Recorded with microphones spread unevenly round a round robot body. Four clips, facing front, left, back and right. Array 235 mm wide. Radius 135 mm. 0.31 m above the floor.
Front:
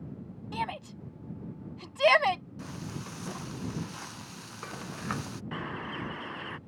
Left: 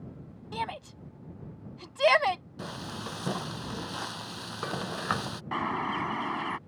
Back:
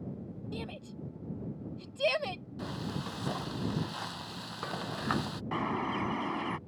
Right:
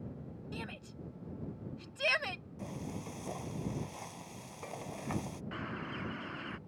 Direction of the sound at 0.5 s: 35° left.